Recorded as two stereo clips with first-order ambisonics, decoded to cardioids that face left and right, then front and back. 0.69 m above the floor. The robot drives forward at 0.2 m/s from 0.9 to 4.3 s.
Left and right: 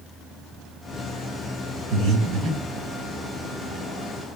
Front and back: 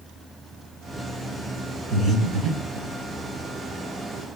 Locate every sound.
1.9 s breathing: 115° right, 2 m; by 2.9 s 120° right, 2 m